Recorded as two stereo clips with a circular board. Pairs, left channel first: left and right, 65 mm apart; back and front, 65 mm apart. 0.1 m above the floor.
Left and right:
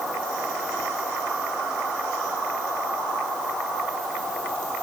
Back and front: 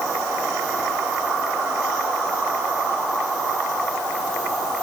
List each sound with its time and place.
Only background noise.